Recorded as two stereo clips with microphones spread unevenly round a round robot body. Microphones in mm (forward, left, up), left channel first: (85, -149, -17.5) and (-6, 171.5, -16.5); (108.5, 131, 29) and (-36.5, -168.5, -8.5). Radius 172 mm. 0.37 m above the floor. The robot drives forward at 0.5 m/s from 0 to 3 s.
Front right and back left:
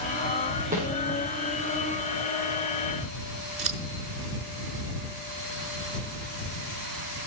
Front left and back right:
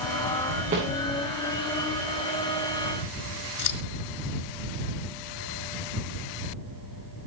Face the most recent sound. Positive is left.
turn(degrees=55)